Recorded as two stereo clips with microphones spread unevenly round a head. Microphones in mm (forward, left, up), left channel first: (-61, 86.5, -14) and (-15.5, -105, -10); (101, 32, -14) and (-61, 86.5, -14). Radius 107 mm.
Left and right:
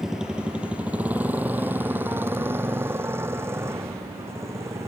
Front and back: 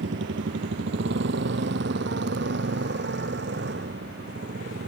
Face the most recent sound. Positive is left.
turn(degrees=-155)